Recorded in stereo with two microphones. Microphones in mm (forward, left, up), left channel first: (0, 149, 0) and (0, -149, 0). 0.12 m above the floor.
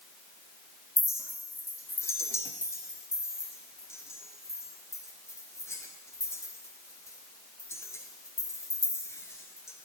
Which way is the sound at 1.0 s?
10° left (ahead or behind).